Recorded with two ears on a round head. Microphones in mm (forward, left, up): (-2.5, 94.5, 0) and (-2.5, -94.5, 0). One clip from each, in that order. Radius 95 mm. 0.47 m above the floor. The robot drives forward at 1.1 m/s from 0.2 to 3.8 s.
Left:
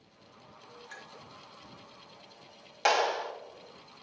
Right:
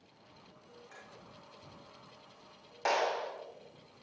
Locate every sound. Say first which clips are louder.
0.9 s a clink: left 7 dB; 70° left (ahead or behind), 4.5 m
2.9 s a clap: left 4 dB; 70° left (ahead or behind), 3 m; by 3.3 s 65° left (ahead or behind), 3 m